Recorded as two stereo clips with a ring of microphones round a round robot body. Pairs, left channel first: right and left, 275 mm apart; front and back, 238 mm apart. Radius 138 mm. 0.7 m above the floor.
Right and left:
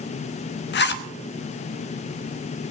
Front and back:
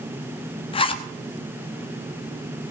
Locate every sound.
0.7 s a zipper: 60° right, 1.0 m